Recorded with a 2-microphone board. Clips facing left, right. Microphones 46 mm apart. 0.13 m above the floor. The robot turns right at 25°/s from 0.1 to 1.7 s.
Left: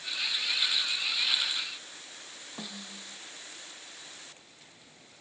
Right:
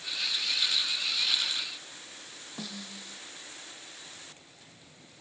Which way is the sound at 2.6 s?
10° left (ahead or behind).